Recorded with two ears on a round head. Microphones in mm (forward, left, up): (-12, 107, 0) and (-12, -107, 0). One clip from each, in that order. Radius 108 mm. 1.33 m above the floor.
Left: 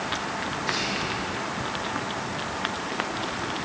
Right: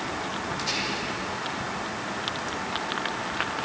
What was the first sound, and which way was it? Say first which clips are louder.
Whispering: left 2 dB; 35° right (ahead or behind).